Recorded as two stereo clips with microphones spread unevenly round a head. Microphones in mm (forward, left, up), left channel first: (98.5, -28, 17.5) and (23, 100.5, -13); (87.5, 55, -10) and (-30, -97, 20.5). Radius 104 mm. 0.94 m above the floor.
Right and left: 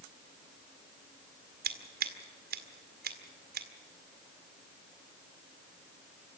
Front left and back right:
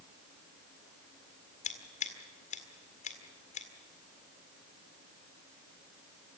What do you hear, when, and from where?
1.6 s scissors: 110° left, 1.9 m